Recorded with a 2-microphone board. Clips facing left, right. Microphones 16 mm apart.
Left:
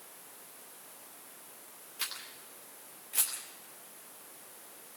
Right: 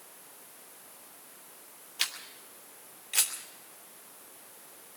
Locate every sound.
2.0 s a camera shutter: 65° right (ahead or behind), 3 m